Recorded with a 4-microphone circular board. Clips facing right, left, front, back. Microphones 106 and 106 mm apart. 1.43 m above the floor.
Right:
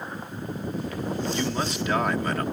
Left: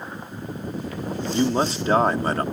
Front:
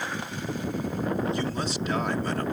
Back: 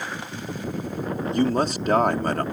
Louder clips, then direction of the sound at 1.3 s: Left 6 dB, back 7 dB; 145° left.